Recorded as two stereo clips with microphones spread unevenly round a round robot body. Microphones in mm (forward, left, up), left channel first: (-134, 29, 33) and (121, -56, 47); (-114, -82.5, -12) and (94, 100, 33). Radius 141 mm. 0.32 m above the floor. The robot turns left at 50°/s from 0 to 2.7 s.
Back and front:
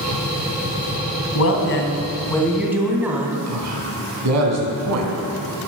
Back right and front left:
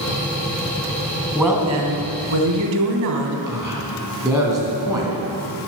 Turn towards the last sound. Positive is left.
turn(degrees=-40)